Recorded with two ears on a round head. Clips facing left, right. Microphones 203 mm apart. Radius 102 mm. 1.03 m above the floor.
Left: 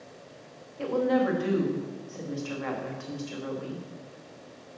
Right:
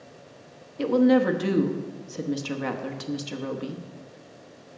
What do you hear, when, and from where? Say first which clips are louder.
0.8 s a woman speaking: right 6 dB; 50° right (ahead or behind), 1.1 m